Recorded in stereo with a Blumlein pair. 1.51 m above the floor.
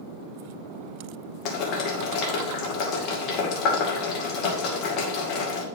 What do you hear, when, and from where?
1.4 s boiling: 35° left, 1.9 m